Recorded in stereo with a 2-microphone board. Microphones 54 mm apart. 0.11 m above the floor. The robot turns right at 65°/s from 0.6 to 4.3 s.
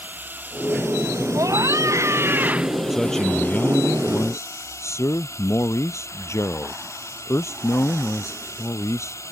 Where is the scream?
110° right; by 2.8 s 15° right.